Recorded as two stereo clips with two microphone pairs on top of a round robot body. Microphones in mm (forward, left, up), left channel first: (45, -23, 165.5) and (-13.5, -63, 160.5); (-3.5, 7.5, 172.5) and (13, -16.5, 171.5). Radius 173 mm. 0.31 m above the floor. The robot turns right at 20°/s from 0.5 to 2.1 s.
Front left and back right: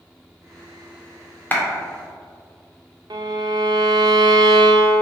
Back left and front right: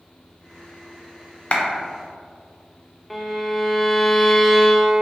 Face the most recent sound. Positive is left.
turn(degrees=-150)